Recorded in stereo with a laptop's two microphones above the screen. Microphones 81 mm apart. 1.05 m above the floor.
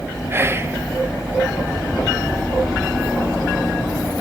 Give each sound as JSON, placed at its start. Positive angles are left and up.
{"t": 0.3, "sound": "whispering", "side_deg": -30, "distance_m": 0.9}